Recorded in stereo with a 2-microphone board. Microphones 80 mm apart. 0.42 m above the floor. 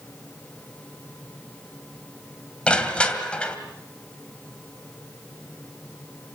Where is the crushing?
15° left (ahead or behind), 2.5 m.